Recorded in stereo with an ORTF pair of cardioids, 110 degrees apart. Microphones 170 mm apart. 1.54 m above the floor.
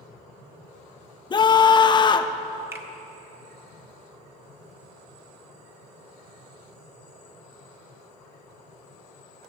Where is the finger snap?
15° right, 1.5 m.